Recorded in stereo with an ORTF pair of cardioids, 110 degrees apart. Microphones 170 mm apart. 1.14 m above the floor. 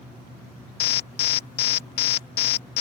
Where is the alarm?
70° left.